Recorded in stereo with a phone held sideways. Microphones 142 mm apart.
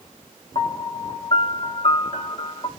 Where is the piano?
35° left (ahead or behind), 1.0 m.